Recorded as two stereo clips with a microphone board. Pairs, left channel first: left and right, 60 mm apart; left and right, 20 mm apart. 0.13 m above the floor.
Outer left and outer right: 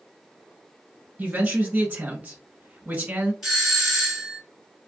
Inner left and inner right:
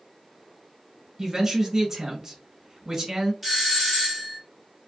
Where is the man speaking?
25° right (ahead or behind), 1.2 m.